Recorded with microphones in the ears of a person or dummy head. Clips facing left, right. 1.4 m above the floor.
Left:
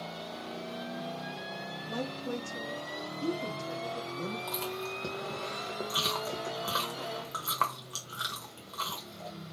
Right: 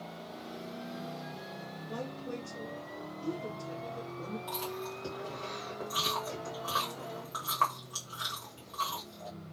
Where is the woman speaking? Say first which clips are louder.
Left 4 dB; 55° left (ahead or behind), 1.1 m.